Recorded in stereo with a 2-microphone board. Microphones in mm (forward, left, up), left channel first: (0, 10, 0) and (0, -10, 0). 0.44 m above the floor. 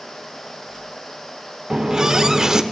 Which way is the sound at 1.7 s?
30° right (ahead or behind).